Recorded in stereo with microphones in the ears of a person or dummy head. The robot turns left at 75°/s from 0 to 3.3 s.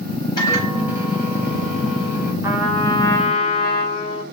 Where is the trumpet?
160° right, 1.9 m; by 4.2 s 135° left, 1.9 m.